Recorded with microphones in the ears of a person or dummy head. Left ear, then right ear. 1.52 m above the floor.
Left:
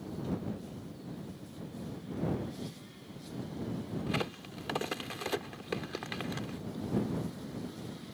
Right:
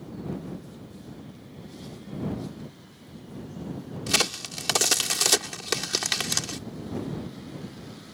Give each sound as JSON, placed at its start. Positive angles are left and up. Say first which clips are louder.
{"t": 4.1, "sound": "a crack", "louder": "right 13 dB", "side_deg": -85}